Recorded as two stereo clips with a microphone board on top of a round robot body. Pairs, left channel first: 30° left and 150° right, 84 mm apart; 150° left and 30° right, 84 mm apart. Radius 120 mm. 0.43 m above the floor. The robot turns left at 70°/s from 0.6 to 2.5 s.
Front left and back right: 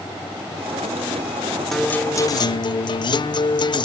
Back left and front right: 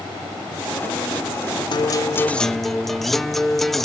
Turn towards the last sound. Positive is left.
turn(degrees=60)